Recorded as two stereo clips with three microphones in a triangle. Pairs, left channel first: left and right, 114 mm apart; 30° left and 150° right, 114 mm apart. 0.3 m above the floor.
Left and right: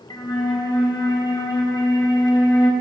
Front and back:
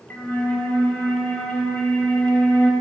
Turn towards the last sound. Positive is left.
turn(degrees=90)